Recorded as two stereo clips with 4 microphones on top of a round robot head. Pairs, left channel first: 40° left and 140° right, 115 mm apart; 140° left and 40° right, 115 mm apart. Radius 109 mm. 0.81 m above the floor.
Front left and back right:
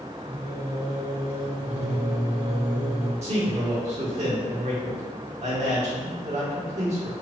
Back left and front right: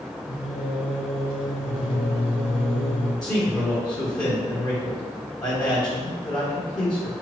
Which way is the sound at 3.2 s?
160° right.